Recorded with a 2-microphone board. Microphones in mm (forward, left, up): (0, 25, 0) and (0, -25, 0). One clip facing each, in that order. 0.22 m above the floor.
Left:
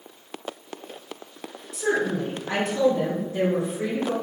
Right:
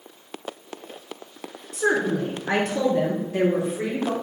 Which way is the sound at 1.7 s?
60° right (ahead or behind).